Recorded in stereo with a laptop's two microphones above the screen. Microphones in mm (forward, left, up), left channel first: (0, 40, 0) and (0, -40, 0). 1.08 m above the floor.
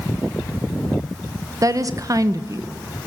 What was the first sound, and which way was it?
A woman speaking, 45° right (ahead or behind).